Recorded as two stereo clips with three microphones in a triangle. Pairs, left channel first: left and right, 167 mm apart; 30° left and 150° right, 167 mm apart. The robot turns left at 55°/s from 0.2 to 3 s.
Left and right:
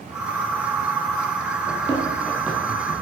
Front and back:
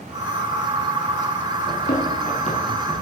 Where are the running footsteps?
55° left, 3 m; by 3.0 s 60° right, 2 m.